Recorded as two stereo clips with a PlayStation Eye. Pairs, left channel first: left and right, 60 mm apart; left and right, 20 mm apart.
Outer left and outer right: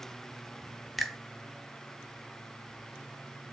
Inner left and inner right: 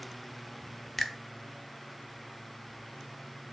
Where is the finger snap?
Centre (ahead or behind), 1.1 m.